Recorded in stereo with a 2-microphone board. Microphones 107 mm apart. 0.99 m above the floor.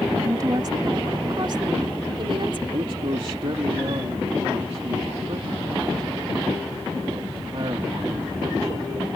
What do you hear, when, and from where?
0.1 s a woman speaking: 35° right (ahead or behind); by 2.6 s 55° right (ahead or behind)
2.7 s a man speaking: 55° right (ahead or behind)